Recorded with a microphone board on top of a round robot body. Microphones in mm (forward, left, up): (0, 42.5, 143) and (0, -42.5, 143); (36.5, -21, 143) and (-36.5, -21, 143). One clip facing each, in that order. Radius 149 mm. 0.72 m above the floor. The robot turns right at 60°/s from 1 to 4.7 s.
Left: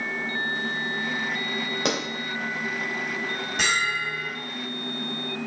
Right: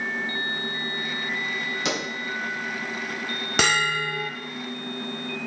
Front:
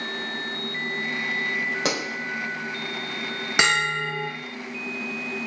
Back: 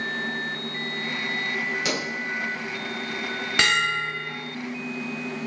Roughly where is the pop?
Ahead left.